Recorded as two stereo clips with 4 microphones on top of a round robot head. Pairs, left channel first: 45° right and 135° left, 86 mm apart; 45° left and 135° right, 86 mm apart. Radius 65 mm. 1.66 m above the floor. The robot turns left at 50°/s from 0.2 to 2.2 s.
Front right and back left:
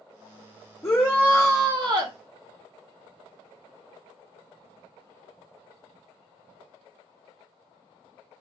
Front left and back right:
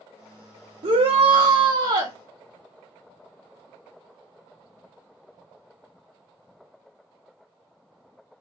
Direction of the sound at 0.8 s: 110° right.